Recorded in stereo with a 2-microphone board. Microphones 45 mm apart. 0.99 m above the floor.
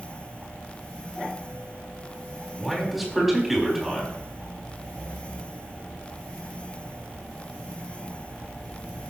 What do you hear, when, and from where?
2.6 s a man speaking: 5° right (ahead or behind), 4 m